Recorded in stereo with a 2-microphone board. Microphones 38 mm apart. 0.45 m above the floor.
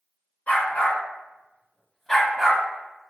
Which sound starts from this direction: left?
A dog barking, at 0.5 s.